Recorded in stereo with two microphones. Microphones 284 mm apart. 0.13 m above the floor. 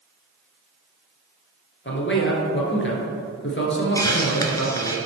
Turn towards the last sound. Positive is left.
turn(degrees=10)  # may be behind; listen again after turning